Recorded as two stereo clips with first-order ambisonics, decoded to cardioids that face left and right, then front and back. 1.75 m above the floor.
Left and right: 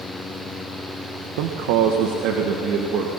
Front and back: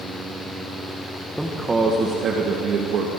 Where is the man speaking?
90° right, 1.8 m; by 3.1 s 140° right, 3 m.